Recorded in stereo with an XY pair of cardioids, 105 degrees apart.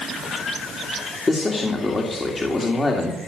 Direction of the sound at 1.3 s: 30° left.